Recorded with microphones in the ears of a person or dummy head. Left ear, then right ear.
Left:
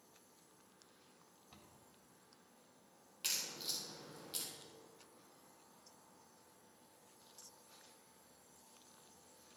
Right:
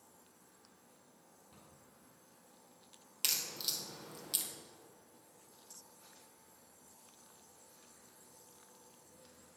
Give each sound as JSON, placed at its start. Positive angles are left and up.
{"t": 1.5, "sound": "a cupboard door", "side_deg": 30, "distance_m": 3.0}
{"t": 3.2, "sound": "a crack", "side_deg": -35, "distance_m": 1.6}